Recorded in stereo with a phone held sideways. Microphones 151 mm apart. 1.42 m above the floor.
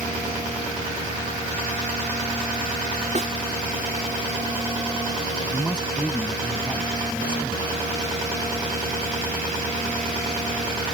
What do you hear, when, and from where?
3.1 s a snare drum: 50° right (ahead or behind)
5.5 s a man speaking: 5° left (ahead or behind)